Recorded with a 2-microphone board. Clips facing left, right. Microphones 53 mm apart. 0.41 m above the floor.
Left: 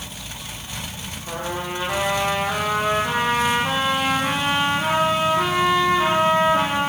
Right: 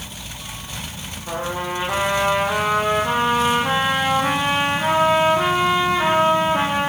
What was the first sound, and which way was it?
A trumpet, 15° right (ahead or behind).